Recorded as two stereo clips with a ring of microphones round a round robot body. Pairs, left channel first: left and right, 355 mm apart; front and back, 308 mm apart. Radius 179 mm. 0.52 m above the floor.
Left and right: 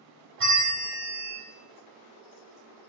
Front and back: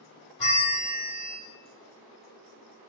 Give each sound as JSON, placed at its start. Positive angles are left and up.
{"t": 0.4, "sound": "a bell", "azimuth_deg": -35, "distance_m": 1.9}